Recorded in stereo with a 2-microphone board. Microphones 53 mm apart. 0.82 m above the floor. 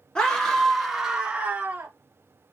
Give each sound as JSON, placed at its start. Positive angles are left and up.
{"t": 0.1, "sound": "a scream", "side_deg": 15, "distance_m": 1.8}